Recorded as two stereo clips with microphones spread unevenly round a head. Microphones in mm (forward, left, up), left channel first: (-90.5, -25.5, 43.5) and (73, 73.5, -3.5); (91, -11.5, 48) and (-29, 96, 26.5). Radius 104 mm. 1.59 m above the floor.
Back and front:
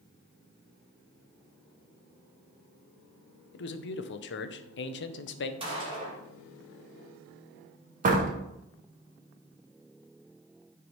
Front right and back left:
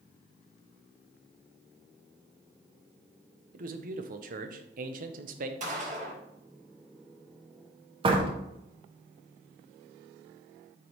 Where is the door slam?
80° left, 1.0 m.